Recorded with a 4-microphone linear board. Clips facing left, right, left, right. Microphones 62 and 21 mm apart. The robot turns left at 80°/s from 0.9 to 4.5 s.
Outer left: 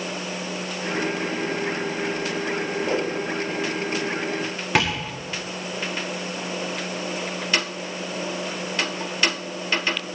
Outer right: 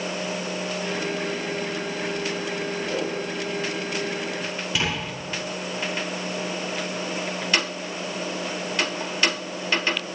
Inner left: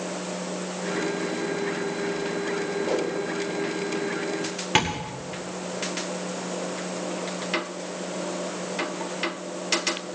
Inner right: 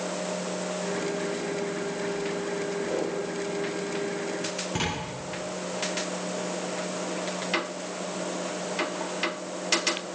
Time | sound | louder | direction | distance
2.9 | a whoosh | outer left 4 dB, inner left 4 dB | 40° left (ahead or behind) | 5 m
4.8 | tapping | outer left 6 dB, inner left 8 dB | 60° left (ahead or behind) | 8 m